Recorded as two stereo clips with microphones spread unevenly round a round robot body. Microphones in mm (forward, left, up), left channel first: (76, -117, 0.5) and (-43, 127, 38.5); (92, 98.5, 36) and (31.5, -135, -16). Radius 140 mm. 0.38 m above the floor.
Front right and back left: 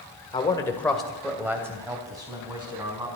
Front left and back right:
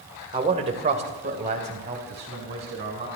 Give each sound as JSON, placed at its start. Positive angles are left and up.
{"t": 0.3, "sound": "a man speaking", "azimuth_deg": -105, "distance_m": 1.6}